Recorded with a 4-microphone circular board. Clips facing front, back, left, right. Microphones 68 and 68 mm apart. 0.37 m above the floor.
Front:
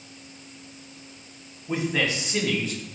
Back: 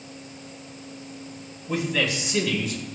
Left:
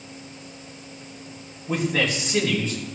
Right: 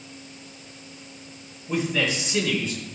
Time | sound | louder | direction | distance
1.7 | a man speaking | even, left 1 dB | 65° left | 2.5 m